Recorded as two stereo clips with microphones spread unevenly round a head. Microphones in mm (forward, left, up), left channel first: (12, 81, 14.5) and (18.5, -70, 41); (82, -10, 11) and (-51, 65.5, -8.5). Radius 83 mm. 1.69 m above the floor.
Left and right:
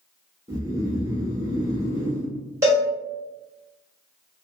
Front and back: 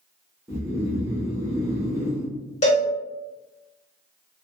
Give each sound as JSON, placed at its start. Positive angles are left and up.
{"t": 0.5, "sound": "snoring", "azimuth_deg": -135, "distance_m": 0.8}
{"t": 2.6, "sound": "a cowbell", "azimuth_deg": -30, "distance_m": 1.5}